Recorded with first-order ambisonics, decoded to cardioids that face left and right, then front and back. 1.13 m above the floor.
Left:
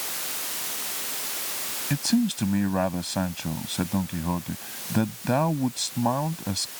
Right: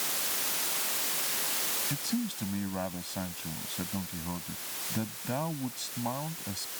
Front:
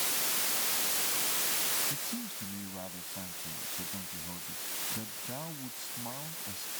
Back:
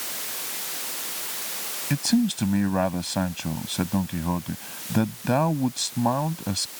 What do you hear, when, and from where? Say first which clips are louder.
1.9 s a man speaking: left 9 dB, back 14 dB; 150° left